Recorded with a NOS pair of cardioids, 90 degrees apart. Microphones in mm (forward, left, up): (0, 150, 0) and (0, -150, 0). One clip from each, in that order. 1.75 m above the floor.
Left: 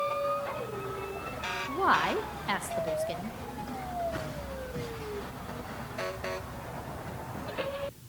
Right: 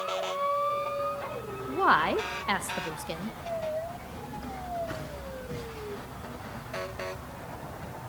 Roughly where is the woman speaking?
Ahead.